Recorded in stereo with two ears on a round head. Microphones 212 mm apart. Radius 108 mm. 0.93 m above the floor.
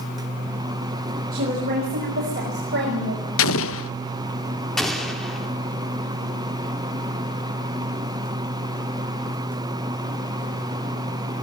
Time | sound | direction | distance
1.3 | a woman speaking | 40° right (ahead or behind) | 6 m
3.4 | an explosion | 60° left (ahead or behind) | 0.5 m
4.8 | an explosion | centre (ahead or behind) | 3 m